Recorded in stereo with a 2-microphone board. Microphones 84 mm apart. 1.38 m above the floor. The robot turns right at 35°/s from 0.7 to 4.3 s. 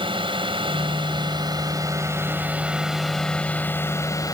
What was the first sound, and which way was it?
A drone, 85° right.